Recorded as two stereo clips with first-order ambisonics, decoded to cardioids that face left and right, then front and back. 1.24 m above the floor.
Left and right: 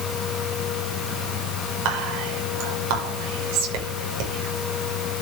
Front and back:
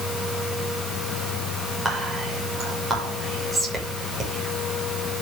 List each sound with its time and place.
1.9 s whispering: 100° right, 6.5 m